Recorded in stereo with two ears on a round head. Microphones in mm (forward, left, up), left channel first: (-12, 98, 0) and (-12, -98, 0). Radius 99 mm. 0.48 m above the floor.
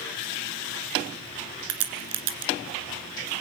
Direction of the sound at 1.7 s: 70° right (ahead or behind).